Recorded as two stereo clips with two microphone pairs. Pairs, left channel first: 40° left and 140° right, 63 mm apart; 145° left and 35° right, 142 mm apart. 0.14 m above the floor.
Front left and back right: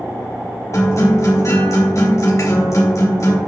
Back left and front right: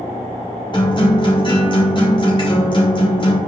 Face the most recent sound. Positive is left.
turn(degrees=85)